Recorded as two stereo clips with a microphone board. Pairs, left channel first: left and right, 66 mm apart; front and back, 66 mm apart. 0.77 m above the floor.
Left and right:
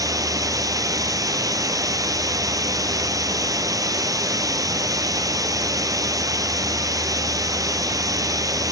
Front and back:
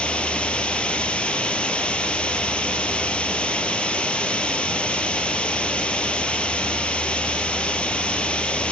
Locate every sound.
0.0 s running water: 75° right, 1.6 m